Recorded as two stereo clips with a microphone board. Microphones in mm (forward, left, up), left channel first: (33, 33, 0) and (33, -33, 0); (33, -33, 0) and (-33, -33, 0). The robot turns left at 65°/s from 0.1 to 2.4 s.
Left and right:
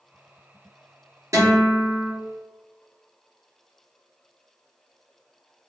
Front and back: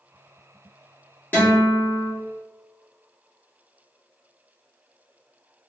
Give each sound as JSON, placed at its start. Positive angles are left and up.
{"t": 1.3, "sound": "a guitar", "azimuth_deg": -60, "distance_m": 1.5}